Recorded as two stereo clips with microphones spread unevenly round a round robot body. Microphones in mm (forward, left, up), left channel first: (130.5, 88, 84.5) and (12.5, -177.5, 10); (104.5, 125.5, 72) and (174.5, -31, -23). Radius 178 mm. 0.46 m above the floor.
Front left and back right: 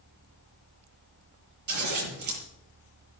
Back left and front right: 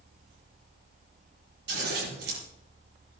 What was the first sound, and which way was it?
Scissors, 90° right.